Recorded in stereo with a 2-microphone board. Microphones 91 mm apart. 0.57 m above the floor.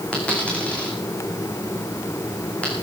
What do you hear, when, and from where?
0.1 s a dropped coin: 15° left (ahead or behind), 4.5 m